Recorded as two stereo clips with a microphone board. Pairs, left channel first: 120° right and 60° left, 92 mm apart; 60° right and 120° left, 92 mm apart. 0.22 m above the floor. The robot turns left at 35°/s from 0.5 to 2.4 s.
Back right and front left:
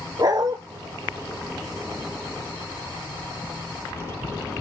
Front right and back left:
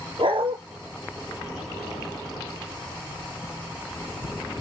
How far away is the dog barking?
About 2.5 m.